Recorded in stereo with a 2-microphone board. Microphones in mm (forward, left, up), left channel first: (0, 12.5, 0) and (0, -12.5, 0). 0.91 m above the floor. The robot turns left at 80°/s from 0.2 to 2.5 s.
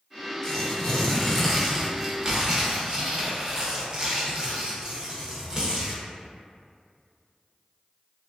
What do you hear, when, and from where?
0.4 s tearing paper: 25° left (ahead or behind), 0.6 m; by 6.0 s 25° right (ahead or behind), 0.6 m